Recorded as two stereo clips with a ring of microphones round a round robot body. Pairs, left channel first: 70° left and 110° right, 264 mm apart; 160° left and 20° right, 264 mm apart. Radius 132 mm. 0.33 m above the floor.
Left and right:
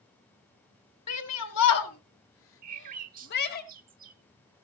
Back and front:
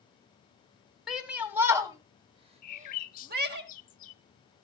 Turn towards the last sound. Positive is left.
turn(degrees=-160)